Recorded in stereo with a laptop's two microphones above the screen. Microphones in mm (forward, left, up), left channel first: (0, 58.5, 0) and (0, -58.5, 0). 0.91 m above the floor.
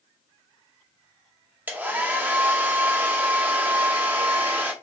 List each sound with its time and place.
1.7 s a hair dryer: 15° right (ahead or behind), 0.5 m